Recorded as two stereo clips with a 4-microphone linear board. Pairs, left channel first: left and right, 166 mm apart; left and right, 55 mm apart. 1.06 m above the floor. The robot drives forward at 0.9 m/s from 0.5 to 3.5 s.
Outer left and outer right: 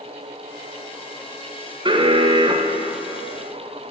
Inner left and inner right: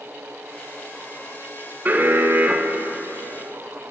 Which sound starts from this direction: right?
An alarm, at 1.9 s.